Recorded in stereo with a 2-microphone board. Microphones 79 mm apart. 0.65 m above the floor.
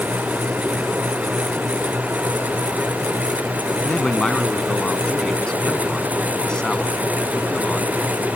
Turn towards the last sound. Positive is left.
turn(degrees=10)  # may be behind; listen again after turning